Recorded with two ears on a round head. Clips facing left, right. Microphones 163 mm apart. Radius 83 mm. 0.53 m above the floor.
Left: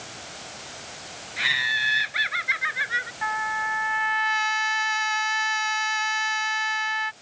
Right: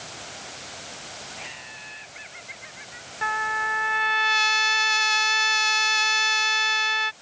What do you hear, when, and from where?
1.4 s laughter: 80° left
3.2 s a trumpet: 40° right (ahead or behind)